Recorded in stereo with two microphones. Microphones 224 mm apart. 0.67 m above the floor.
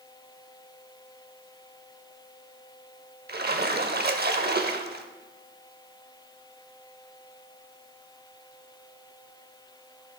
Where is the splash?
45° right (ahead or behind), 0.6 m.